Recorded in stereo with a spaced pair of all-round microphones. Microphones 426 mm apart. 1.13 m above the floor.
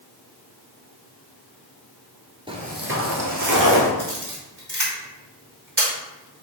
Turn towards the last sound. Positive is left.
turn(degrees=-60)  # may be behind; listen again after turning